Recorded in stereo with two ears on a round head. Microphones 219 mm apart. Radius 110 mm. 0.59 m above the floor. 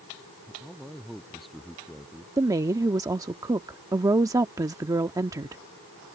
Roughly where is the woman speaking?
Centre.